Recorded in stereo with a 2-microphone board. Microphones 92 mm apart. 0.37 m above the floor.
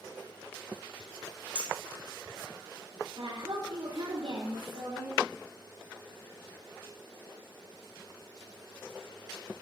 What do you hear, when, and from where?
1.6 s a clink: 75° left (ahead or behind), 3.5 m
3.2 s a woman speaking: 70° right (ahead or behind), 4.5 m